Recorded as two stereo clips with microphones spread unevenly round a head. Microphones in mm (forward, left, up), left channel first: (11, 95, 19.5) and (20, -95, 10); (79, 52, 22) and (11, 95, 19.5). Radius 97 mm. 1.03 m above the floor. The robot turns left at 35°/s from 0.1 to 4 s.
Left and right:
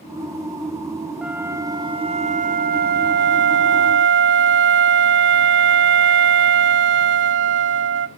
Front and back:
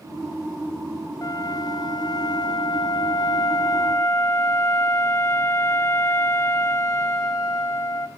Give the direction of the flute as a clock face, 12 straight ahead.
12 o'clock.